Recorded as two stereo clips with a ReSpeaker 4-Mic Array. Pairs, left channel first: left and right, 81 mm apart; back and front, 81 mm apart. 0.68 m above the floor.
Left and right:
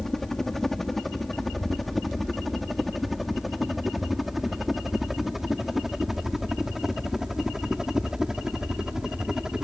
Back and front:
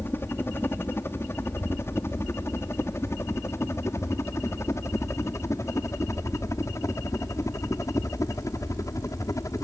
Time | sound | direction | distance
0.0 | a helicopter | 170° left | ?